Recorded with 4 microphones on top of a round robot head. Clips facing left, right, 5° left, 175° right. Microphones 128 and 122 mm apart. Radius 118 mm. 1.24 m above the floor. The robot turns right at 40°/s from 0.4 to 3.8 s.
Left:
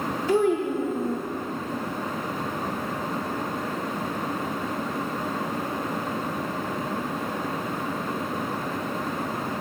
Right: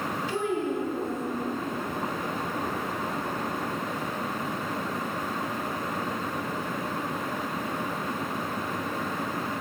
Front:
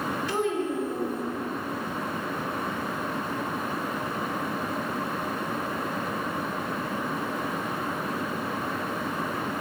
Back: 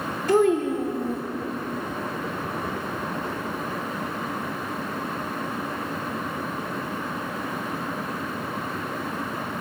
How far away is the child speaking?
About 0.6 m.